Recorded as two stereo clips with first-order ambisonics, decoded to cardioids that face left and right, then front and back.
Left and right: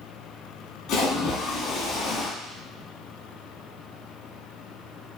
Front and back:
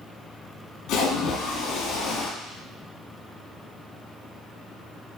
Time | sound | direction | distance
0.9 | a splash | 35° left | 2.0 m